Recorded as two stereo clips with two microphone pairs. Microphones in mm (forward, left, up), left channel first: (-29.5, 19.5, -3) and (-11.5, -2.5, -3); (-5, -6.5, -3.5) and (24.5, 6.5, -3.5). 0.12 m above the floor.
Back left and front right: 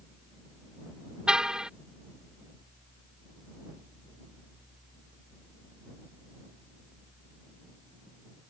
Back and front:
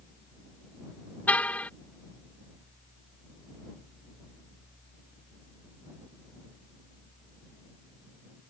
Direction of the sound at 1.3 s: 115° right.